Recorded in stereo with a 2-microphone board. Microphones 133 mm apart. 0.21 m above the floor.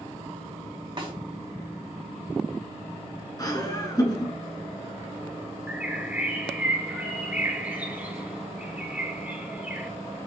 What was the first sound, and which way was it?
A snare drum, 40° right (ahead or behind).